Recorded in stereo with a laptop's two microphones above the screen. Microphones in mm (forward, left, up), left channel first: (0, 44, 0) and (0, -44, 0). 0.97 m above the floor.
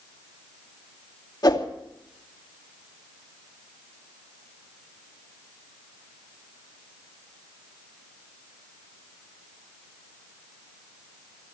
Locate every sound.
1.4 s a whoosh: 50° left (ahead or behind), 2.5 m